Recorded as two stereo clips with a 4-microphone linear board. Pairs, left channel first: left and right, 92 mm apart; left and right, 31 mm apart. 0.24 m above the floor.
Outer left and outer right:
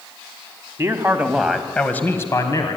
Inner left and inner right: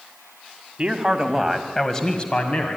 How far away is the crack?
No crack in this recording.